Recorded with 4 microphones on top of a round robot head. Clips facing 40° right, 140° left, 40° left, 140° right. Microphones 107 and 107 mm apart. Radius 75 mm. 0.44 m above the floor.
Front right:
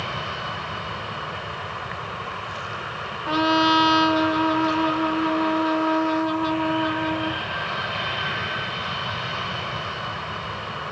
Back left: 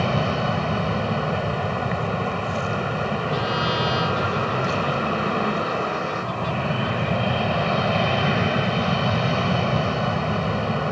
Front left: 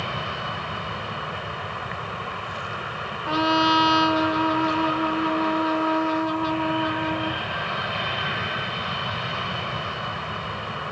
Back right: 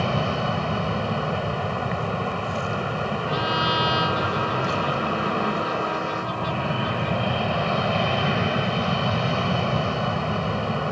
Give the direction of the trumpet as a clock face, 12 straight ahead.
12 o'clock.